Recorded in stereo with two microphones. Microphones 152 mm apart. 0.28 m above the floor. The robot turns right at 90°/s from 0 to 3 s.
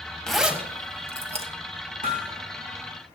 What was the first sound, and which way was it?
A zipper, 5° left (ahead or behind).